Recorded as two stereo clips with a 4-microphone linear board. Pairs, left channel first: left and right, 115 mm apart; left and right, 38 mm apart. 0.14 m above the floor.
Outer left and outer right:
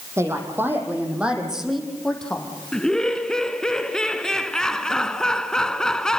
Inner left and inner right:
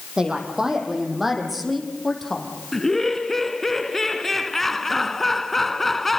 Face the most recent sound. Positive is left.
turn(degrees=5)  # may be behind; listen again after turning